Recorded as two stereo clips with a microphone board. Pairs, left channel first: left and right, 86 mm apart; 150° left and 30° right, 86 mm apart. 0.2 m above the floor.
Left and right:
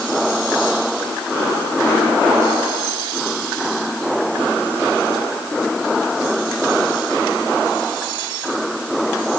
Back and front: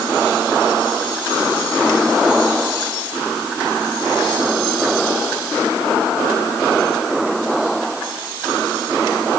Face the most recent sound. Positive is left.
No sound to turn to.